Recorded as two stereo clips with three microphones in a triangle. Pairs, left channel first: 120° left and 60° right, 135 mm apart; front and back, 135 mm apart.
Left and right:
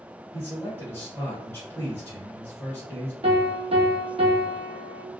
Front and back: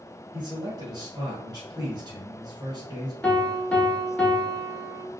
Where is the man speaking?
175° left, 1.4 m.